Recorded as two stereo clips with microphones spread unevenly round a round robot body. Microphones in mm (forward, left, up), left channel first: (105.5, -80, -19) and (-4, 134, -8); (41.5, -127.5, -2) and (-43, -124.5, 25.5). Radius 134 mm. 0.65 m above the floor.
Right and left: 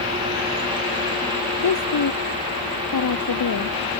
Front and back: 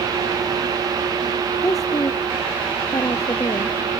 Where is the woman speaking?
50° right.